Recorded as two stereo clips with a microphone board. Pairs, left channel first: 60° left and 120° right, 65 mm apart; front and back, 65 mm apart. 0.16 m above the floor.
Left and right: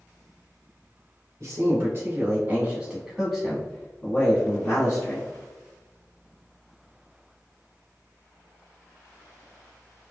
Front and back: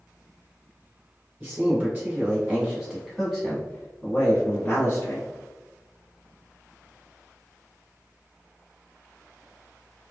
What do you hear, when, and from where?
1.4 s a man speaking: 140° right, 2.0 m; by 5.3 s 40° left, 2.0 m